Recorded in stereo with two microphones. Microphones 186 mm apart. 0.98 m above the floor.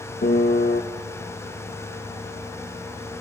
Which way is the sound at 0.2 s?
55° left (ahead or behind).